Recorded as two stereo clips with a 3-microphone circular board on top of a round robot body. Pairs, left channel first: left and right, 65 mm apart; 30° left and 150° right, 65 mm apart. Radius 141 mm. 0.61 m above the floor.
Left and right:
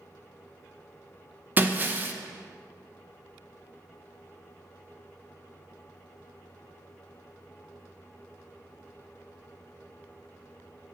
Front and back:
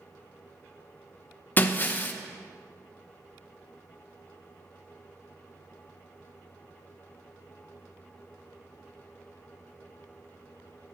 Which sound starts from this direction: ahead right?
Breaking glass, at 1.6 s.